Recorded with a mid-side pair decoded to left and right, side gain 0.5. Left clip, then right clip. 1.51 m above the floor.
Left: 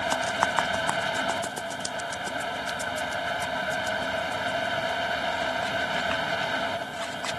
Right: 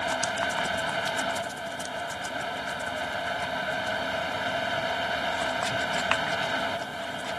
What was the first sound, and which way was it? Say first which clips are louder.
A fan: left 2 dB; 10° left.